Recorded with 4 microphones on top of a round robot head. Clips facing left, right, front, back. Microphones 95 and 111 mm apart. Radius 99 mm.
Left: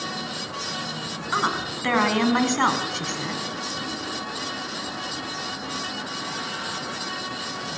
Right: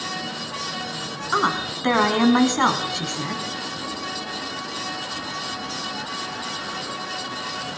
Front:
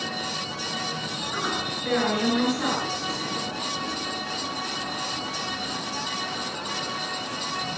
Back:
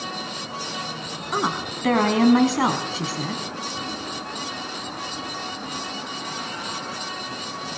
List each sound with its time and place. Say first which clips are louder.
1.3 s a woman speaking: right 3 dB, back 6 dB; 160° right, 5 m; by 3.4 s 175° right, 5 m